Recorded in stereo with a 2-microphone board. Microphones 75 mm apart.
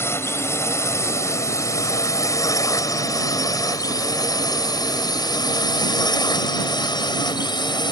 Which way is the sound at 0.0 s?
35° left (ahead or behind).